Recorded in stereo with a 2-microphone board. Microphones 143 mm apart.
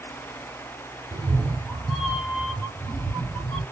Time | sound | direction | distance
1.1 | a cat meowing | 30° right (ahead or behind) | 0.8 m